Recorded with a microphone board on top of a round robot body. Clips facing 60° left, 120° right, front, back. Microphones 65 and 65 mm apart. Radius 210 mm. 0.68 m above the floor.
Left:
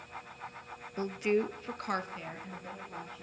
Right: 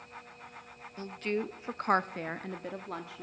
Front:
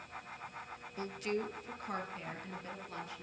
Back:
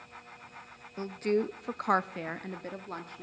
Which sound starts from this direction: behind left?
A woman speaking, at 1.0 s.